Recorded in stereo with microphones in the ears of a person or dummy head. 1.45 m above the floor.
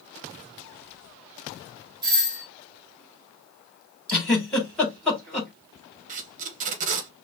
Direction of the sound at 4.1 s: 10° left (ahead or behind).